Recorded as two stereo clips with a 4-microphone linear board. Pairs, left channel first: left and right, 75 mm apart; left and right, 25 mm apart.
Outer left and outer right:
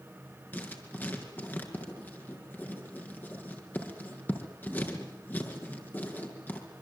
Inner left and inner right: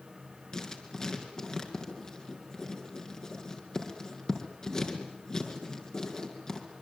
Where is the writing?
25° left (ahead or behind), 5 m.